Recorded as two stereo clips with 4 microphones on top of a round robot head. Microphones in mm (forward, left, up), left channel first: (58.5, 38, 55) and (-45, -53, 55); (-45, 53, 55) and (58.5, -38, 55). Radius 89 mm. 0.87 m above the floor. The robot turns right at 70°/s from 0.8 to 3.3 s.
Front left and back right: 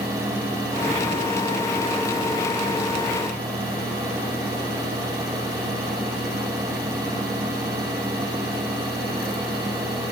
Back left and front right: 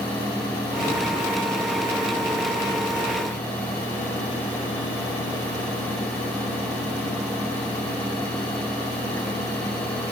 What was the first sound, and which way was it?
Only background noise.